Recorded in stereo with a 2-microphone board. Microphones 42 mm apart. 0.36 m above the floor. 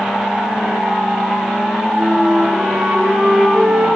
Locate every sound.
2.0 s a flute: 20° right (ahead or behind), 8 m